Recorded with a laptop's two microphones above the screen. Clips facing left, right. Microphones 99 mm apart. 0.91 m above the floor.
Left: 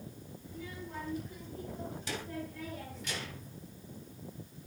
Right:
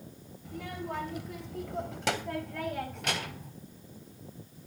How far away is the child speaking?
About 2.5 m.